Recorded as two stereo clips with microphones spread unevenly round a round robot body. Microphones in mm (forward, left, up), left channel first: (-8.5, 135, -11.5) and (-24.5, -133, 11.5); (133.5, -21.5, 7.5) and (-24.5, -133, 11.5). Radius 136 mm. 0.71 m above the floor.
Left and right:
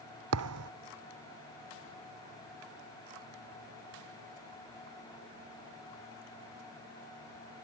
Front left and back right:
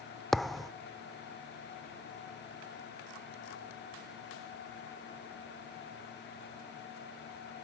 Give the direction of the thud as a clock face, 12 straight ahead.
2 o'clock.